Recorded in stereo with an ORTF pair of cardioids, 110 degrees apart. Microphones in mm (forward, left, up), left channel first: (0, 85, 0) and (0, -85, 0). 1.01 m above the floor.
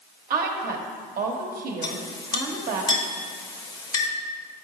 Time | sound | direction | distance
0.3 | a woman speaking | 60° right | 1.0 m
1.8 | a clink | 25° left | 0.8 m